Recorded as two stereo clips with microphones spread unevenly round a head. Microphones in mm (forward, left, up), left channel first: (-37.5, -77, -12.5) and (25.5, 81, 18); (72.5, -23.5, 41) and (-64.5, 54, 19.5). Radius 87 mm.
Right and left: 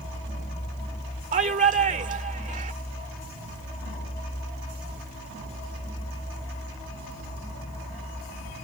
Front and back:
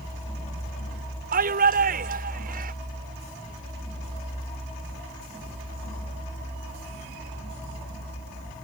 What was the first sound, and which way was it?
A shout, 115° left.